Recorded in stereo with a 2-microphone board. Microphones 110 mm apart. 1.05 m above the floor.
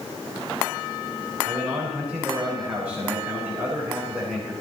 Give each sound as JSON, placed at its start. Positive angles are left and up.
{"t": 1.4, "sound": "a man speaking", "side_deg": -15, "distance_m": 5.0}